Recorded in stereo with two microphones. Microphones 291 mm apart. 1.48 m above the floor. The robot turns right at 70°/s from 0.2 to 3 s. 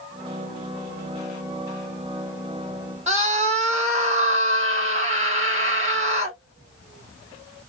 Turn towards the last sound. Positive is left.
turn(degrees=-25)  # may be behind; listen again after turning